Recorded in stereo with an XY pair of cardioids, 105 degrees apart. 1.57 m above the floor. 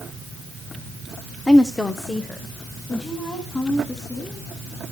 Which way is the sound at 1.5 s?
15° left.